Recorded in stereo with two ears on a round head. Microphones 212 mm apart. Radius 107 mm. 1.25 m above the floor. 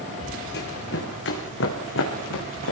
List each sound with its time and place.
0.5 s running footsteps: 50° left (ahead or behind), 5.5 m; by 2.7 s 60° left (ahead or behind), 6.5 m